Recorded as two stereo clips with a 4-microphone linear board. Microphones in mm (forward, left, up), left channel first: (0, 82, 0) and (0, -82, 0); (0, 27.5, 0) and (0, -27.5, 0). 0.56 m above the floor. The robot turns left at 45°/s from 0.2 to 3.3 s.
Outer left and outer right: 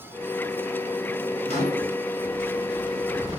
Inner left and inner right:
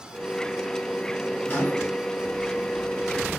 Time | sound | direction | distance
1.4 | a microwave | 35° left (ahead or behind) | 0.9 m